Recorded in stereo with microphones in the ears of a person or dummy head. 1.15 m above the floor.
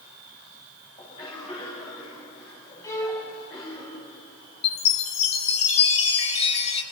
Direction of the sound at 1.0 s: 30° left (ahead or behind).